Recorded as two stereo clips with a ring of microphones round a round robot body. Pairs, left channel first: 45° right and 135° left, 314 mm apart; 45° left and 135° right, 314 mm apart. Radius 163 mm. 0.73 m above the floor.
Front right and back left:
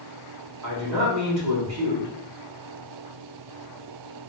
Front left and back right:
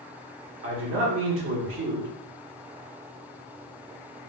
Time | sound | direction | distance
0.6 | a man speaking | 175° left | 1.6 m